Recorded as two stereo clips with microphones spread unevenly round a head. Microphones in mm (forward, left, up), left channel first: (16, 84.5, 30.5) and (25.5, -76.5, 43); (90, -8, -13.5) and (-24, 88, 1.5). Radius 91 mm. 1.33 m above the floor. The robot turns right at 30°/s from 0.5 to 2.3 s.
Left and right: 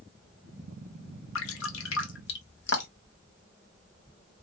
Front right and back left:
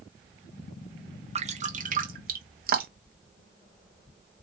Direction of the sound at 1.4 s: 95° left.